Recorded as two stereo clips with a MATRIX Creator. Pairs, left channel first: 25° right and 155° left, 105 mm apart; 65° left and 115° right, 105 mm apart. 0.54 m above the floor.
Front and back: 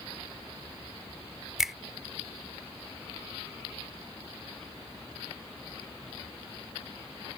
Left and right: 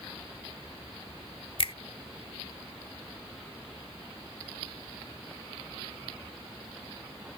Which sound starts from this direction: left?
A finger snap, at 1.6 s.